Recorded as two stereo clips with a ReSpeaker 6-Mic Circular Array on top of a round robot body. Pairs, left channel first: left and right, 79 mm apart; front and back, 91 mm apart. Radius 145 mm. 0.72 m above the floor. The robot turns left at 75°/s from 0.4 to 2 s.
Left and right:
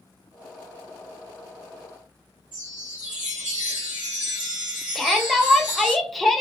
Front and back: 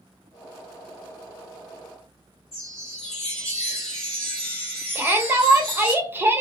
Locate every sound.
2.5 s a chime: 10° right, 0.8 m
5.0 s a shout: straight behind, 0.8 m